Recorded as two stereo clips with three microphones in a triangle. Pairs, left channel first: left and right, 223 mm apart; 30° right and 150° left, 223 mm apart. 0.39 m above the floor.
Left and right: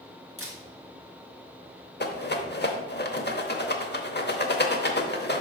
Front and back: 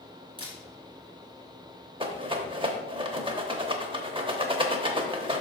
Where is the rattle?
95° left, 0.8 m.